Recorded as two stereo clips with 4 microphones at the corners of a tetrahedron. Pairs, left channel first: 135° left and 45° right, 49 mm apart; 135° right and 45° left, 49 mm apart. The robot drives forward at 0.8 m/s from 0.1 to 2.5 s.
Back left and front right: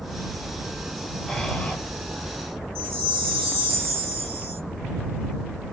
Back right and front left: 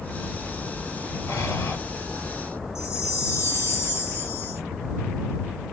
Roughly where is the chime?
Behind.